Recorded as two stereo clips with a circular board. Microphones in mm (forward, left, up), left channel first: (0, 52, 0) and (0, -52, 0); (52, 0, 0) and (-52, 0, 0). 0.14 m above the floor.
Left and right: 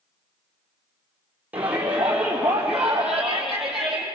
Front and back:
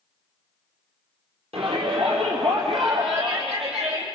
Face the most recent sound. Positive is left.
turn(degrees=180)